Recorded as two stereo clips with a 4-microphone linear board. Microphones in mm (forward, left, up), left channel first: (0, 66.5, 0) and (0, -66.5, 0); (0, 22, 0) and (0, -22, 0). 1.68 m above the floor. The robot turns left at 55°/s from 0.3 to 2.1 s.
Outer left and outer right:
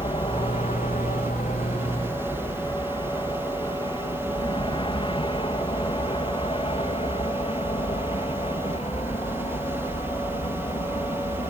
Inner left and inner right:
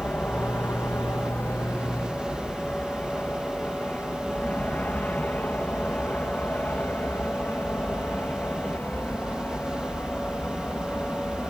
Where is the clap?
I don't hear a clap.